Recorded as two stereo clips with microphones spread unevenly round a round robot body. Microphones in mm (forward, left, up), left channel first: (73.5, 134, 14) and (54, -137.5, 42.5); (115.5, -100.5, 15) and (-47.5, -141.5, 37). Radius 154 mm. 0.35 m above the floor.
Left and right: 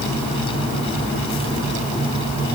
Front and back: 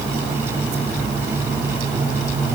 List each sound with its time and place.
Only background noise.